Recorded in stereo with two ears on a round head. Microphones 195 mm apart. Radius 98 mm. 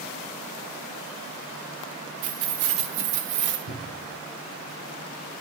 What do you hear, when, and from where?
2.2 s keys jangling: 70° right (ahead or behind), 1.5 m; by 3.6 s 55° right (ahead or behind), 1.7 m
3.7 s a cupboard door: 80° left, 3 m